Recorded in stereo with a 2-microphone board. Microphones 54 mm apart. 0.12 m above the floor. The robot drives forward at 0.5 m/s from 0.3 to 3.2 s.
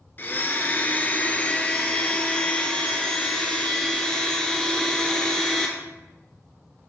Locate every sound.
0.2 s a blender: 40° left (ahead or behind), 0.8 m; by 5.7 s 15° left (ahead or behind), 1.8 m